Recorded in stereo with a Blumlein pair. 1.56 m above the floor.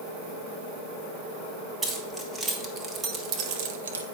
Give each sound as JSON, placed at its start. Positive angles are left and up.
{"t": 1.8, "sound": "keys jangling", "azimuth_deg": -10, "distance_m": 1.7}